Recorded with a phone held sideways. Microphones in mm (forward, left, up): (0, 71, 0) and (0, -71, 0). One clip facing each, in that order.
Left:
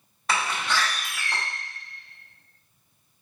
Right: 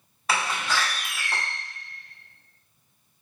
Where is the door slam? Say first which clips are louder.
Even; 5° right (ahead or behind), 1.8 m.